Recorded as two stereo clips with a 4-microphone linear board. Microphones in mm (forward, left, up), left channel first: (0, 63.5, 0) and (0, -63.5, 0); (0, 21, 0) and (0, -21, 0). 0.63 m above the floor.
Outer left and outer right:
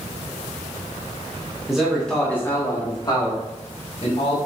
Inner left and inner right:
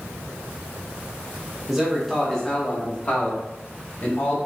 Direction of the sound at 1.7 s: 5° right (ahead or behind).